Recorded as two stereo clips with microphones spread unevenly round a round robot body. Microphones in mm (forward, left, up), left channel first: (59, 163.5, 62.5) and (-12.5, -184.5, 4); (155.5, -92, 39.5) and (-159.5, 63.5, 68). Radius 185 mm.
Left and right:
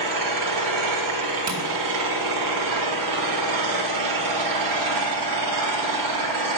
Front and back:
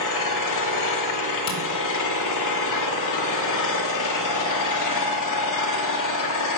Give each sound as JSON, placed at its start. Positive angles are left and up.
{"t": 0.0, "sound": "an engine running", "azimuth_deg": -65, "distance_m": 1.2}
{"t": 1.5, "sound": "tapping", "azimuth_deg": -55, "distance_m": 1.6}